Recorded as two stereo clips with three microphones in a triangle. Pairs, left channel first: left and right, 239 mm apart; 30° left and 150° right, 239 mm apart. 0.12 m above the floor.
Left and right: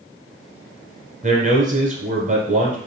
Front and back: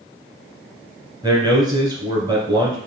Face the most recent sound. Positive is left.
turn(degrees=-90)